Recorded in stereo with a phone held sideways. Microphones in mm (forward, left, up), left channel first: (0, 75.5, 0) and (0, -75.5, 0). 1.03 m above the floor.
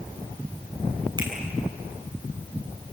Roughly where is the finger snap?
Right.